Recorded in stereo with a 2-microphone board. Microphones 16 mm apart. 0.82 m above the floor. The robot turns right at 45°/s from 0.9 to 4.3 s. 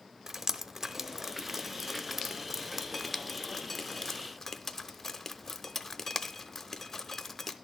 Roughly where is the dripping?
Right.